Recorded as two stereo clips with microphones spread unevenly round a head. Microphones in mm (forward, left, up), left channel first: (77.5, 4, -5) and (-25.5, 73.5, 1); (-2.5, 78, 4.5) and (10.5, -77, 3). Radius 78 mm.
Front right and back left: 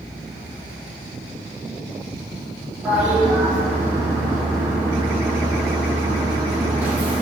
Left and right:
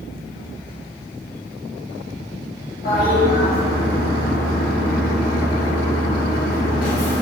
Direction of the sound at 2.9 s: 70° left.